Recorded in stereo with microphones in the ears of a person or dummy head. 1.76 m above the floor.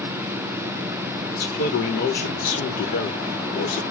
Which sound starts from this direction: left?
A man speaking, at 1.3 s.